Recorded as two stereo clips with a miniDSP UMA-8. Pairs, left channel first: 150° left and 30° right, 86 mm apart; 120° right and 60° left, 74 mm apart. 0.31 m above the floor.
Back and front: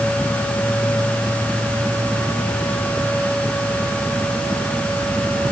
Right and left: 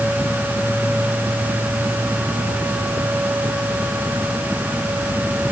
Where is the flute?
No flute in this recording.